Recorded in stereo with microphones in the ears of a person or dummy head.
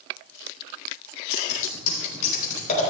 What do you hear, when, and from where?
1.3 s scissors: 55° left (ahead or behind), 4.5 m